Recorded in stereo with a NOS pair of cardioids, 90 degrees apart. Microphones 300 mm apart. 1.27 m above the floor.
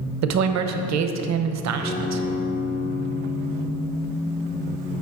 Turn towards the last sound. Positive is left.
turn(degrees=70)